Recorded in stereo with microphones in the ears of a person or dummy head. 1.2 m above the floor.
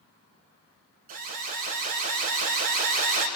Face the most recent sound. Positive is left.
turn(degrees=-45)  # may be behind; listen again after turning